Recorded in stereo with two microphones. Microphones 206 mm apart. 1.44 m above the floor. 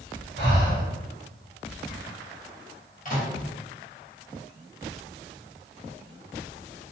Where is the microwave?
40° left (ahead or behind), 1.0 m.